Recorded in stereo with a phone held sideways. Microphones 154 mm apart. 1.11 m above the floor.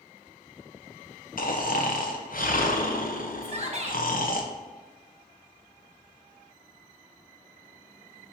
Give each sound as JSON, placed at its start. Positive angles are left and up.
{"t": 1.4, "sound": "snoring", "side_deg": 65, "distance_m": 0.8}
{"t": 3.4, "sound": "a shout", "side_deg": -45, "distance_m": 1.3}